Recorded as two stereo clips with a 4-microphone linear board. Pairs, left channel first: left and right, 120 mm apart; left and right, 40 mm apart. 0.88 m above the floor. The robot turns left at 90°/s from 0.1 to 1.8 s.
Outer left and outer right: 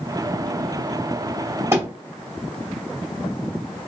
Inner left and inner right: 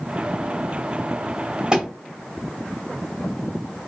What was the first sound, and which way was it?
A thud, 20° right (ahead or behind).